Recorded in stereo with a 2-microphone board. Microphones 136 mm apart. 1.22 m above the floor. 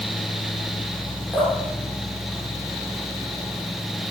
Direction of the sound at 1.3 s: Centre (ahead or behind).